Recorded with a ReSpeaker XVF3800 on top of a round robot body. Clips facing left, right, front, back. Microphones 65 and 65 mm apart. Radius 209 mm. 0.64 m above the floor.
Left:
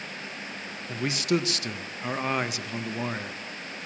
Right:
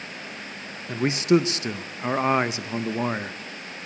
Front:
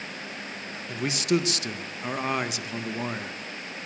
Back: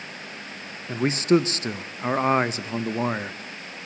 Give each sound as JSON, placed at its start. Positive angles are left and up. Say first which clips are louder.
{"t": 0.9, "sound": "a man speaking", "louder": "right 7 dB, back 6 dB", "azimuth_deg": -140, "distance_m": 0.9}